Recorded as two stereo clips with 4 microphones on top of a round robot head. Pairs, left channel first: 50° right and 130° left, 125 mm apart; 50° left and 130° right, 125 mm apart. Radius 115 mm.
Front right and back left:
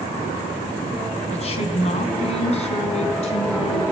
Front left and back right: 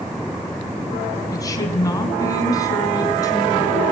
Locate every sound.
1.3 s a woman speaking: 10° right, 4 m; by 3.8 s 15° right, 6 m